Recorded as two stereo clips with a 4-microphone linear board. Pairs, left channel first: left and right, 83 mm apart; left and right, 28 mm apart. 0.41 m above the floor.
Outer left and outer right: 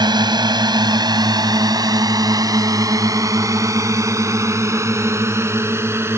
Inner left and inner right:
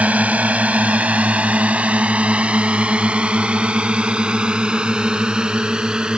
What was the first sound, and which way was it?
A drone, 60° right (ahead or behind).